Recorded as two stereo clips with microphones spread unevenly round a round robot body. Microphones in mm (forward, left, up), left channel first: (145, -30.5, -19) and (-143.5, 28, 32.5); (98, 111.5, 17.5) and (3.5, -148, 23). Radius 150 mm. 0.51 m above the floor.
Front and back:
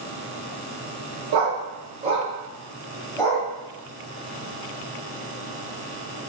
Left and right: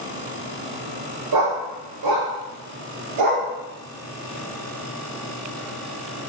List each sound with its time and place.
1.3 s a dog barking: 150° right, 0.7 m; by 3.5 s 90° right, 1.3 m